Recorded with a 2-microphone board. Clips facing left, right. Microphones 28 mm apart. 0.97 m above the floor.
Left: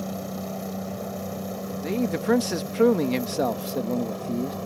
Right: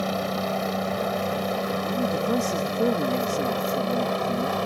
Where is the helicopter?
50° right (ahead or behind); by 4.7 s 55° right (ahead or behind).